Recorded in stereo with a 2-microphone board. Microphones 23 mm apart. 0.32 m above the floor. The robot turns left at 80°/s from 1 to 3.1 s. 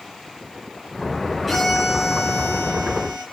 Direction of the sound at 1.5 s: 10° left.